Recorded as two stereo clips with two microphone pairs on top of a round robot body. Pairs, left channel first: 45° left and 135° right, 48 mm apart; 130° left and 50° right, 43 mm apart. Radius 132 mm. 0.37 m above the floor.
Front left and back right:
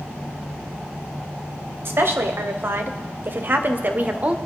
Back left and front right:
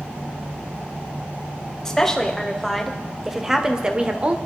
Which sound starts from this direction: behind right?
A woman speaking, at 1.9 s.